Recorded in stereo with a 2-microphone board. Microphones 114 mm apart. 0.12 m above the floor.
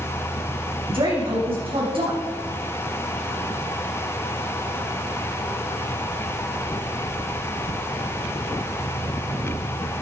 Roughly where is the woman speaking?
Right.